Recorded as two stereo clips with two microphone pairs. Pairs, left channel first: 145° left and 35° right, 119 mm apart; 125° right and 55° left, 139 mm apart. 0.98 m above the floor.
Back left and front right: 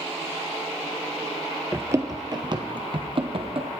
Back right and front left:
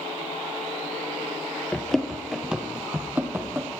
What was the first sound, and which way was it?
Running footsteps, 50° right.